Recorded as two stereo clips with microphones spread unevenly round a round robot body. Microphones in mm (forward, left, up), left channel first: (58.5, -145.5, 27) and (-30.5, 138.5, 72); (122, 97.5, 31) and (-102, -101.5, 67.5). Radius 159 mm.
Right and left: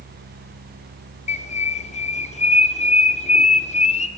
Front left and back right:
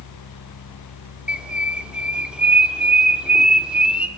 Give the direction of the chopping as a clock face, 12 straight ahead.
I don't hear chopping.